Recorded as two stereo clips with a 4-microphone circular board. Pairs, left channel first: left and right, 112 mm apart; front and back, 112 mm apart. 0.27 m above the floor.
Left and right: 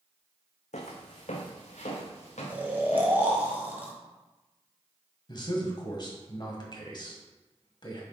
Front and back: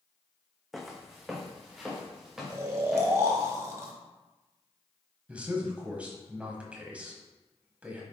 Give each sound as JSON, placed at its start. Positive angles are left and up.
{"t": 0.7, "sound": "footsteps", "azimuth_deg": 90, "distance_m": 1.0}
{"t": 2.5, "sound": "snoring", "azimuth_deg": -145, "distance_m": 1.3}
{"t": 5.3, "sound": "a man speaking", "azimuth_deg": 105, "distance_m": 1.5}